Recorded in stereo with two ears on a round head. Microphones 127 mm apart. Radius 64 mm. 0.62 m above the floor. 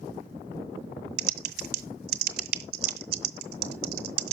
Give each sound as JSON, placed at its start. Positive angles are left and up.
{"t": 1.2, "sound": "typing on a keyboard", "side_deg": -80, "distance_m": 1.0}